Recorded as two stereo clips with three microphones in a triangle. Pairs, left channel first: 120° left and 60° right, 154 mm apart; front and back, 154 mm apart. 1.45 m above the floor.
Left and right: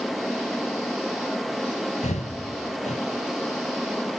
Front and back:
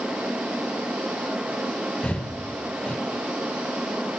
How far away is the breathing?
About 2 m.